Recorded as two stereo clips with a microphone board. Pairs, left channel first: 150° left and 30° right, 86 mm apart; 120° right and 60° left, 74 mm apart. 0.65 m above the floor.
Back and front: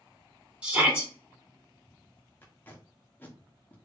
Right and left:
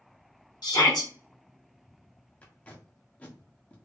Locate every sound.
0.6 s a shout: 105° right, 1.9 m
2.4 s tape being pulled: 165° right, 0.8 m